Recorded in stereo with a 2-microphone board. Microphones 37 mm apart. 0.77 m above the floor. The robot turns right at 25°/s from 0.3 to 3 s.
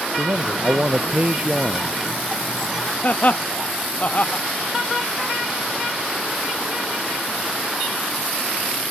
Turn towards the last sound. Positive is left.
turn(degrees=50)  # may be behind; listen again after turning